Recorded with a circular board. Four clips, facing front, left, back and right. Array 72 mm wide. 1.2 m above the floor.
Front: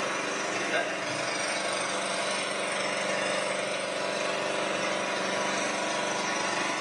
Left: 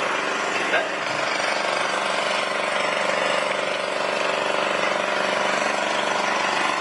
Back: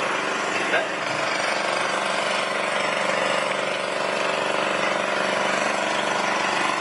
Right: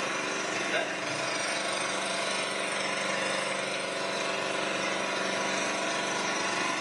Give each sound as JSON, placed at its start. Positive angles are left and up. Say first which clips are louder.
{"t": 0.0, "sound": "an engine running", "louder": "left 8 dB, back 6 dB", "azimuth_deg": 130, "distance_m": 0.7}